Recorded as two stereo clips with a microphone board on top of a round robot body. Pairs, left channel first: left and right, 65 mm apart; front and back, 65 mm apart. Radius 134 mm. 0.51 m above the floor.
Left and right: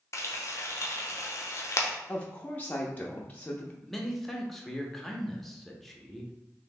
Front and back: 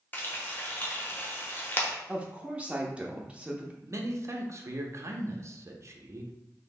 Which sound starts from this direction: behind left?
A woman speaking, at 2.1 s.